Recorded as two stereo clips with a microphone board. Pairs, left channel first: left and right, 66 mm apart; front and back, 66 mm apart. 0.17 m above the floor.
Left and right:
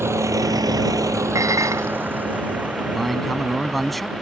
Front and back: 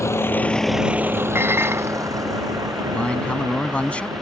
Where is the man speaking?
5° left.